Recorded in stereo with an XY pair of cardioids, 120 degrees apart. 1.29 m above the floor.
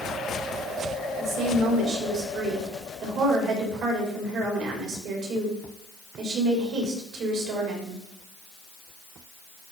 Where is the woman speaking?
70° right, 3.5 m.